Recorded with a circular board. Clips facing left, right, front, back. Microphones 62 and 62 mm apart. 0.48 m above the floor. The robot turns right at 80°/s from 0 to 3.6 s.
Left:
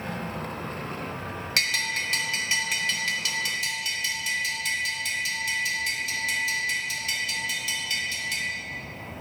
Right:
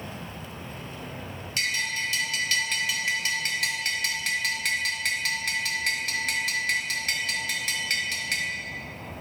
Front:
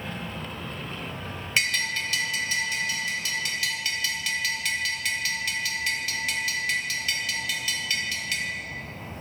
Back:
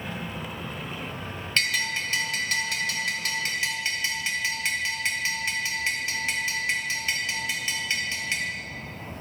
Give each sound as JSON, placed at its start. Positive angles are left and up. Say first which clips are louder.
{"t": 1.6, "sound": "a bell", "louder": "left 1 dB, even", "azimuth_deg": 80, "distance_m": 0.9}